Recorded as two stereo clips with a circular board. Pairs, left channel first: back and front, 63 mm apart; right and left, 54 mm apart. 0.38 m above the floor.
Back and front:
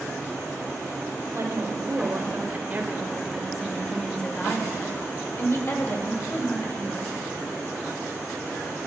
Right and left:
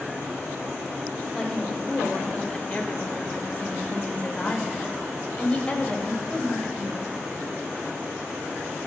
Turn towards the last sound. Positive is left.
turn(degrees=-160)